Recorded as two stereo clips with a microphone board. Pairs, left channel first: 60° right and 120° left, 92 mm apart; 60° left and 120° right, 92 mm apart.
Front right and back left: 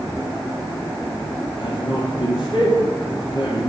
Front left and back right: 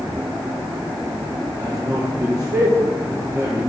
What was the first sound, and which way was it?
A man speaking, 40° right.